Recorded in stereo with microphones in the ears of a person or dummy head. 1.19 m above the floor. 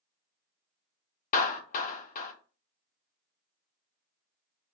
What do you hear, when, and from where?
1.3 s a clap: 50° left (ahead or behind), 0.6 m